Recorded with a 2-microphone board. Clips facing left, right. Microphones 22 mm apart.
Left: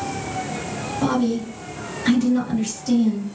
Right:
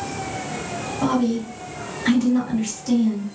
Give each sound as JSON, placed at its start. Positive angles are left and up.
{"t": 1.0, "sound": "a woman speaking", "side_deg": 0, "distance_m": 1.9}